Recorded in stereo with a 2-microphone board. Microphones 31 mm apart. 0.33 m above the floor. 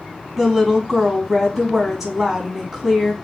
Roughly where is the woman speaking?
Centre.